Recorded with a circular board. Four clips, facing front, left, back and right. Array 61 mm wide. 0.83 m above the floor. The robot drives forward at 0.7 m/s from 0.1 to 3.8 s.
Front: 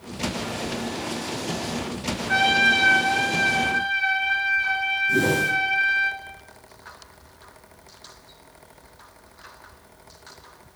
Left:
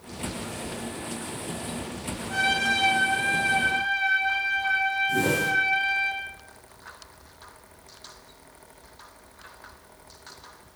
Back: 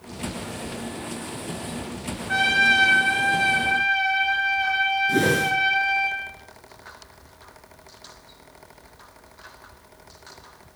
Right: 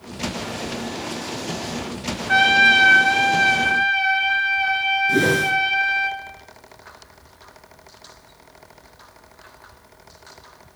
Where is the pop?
No pop in this recording.